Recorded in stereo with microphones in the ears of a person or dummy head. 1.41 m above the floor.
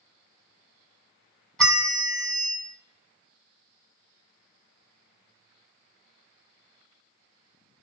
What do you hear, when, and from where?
1.6 s a bell: centre (ahead or behind), 1.0 m